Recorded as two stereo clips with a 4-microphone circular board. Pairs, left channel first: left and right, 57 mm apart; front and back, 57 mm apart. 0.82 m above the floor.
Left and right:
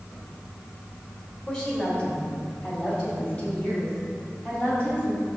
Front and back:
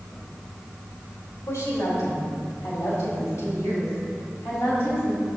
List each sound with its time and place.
1.5 s a woman speaking: 30° left, 2 m; by 5.3 s 40° left, 6 m